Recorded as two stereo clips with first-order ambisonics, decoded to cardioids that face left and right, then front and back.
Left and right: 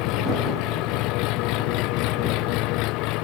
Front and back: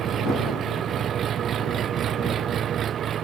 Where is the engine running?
120° left.